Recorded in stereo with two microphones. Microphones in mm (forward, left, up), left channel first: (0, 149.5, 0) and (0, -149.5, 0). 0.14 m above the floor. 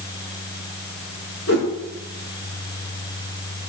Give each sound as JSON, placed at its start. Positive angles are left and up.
{"t": 1.5, "sound": "a whoosh", "side_deg": 50, "distance_m": 4.5}